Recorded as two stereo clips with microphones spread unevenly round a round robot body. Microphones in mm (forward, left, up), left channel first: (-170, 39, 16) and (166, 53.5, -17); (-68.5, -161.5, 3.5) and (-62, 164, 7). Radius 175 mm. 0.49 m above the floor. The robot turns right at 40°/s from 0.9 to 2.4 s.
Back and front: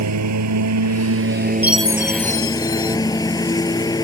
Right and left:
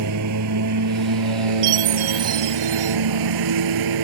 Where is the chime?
85° left; by 3.0 s 120° left.